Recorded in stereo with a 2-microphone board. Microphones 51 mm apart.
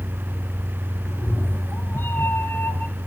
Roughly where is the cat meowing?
Left.